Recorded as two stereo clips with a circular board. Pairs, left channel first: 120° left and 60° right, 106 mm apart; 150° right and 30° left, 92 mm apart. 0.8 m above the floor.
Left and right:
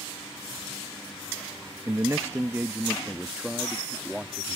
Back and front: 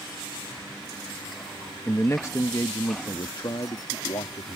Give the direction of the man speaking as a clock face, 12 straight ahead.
3 o'clock.